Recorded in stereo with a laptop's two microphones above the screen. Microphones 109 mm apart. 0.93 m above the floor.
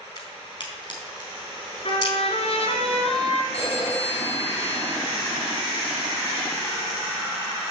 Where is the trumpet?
65° left (ahead or behind), 2.5 m.